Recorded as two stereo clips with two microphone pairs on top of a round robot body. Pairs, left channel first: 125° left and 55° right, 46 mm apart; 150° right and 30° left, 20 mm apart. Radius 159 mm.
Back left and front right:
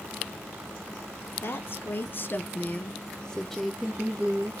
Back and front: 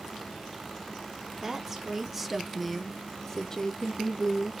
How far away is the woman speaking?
About 1.2 m.